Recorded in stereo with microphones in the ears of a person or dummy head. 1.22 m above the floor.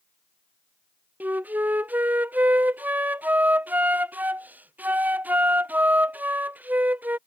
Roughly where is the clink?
No clink in this recording.